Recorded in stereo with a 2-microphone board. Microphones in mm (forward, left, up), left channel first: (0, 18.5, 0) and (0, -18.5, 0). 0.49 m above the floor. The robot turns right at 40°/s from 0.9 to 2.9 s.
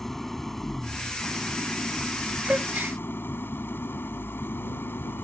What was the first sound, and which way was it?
An engine running, 5° left.